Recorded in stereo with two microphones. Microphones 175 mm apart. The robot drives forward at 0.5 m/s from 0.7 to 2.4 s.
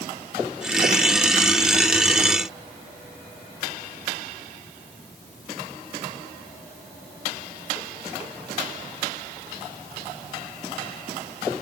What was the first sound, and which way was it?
Only background noise.